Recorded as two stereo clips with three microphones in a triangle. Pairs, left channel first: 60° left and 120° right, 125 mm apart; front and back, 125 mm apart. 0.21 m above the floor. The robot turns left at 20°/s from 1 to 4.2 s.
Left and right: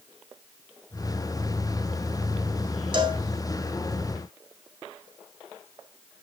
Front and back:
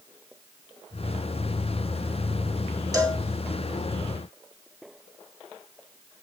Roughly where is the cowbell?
Behind right.